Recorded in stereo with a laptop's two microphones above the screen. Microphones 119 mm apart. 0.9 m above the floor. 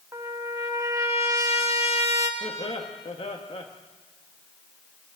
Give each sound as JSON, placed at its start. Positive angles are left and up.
{"t": 0.1, "sound": "a trumpet", "side_deg": -25, "distance_m": 1.5}
{"t": 2.4, "sound": "laughter", "side_deg": 50, "distance_m": 1.2}